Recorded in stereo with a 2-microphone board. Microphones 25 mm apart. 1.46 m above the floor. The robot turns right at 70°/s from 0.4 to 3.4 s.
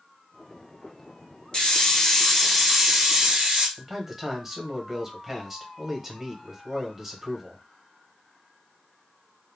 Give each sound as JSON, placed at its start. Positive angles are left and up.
{"t": 1.5, "sound": "a hiss", "azimuth_deg": 110, "distance_m": 1.6}
{"t": 3.8, "sound": "a man speaking", "side_deg": -10, "distance_m": 1.1}